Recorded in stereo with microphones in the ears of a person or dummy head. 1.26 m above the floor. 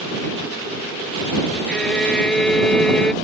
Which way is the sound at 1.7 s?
5° left (ahead or behind).